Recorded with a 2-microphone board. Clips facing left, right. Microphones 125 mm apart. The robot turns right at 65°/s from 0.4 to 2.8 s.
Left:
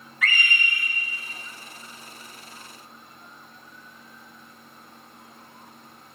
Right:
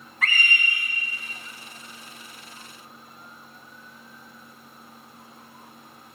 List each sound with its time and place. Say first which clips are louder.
0.2 s a scream: even; 55° right, 2 m; by 0.9 s 20° right, 2 m